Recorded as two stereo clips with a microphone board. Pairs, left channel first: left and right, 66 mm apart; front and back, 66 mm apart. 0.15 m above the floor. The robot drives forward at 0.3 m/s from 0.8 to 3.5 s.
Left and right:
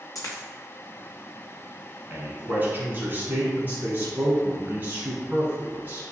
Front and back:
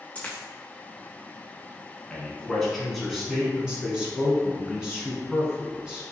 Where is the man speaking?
70° right, 1.1 m; by 6.0 s 110° right, 1.1 m.